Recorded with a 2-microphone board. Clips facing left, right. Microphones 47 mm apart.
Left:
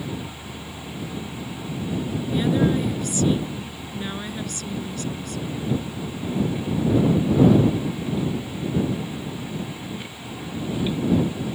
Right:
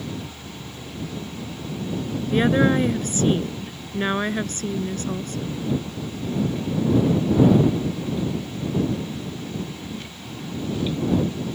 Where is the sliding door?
I don't hear a sliding door.